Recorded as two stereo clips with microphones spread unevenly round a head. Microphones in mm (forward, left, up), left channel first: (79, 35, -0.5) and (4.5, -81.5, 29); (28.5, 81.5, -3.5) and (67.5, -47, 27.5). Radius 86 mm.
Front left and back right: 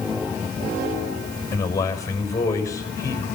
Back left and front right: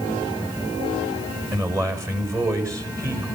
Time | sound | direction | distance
1.5 | a man speaking | 10° right | 6.5 m